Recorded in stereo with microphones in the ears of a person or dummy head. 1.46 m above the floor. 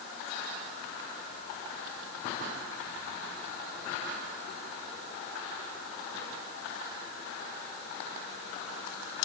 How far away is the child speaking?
I don't hear a child speaking.